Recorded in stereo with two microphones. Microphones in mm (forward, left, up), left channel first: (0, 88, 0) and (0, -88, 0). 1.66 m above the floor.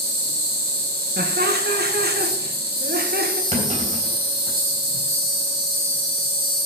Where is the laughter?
65° right (ahead or behind), 1.8 m.